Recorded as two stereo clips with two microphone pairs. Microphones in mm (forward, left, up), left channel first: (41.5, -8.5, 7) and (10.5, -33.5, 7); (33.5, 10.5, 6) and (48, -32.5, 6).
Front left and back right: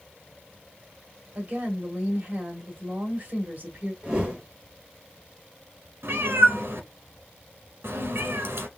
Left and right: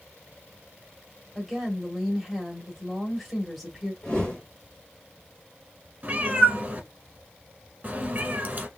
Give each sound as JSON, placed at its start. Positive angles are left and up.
{"t": 1.4, "sound": "a woman speaking", "azimuth_deg": -160, "distance_m": 1.7}
{"t": 4.0, "sound": "a whoosh", "azimuth_deg": 170, "distance_m": 1.9}
{"t": 6.0, "sound": "a cat meowing", "azimuth_deg": -125, "distance_m": 1.0}